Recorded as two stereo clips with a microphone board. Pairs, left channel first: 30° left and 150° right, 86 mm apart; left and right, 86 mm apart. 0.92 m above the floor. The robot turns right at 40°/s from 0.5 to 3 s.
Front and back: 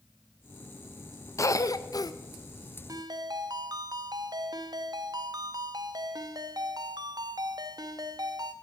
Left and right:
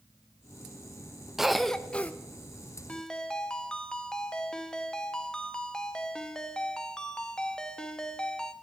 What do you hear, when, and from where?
1.4 s a cough: 5° right, 0.5 m; by 2.1 s 25° left, 0.5 m
2.9 s a ringtone: 165° left, 0.8 m; by 8.5 s 170° left, 0.8 m